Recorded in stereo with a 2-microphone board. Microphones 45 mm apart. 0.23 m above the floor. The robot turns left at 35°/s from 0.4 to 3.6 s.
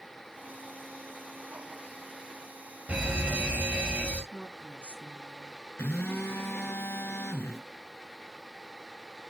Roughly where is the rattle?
No rattle in this recording.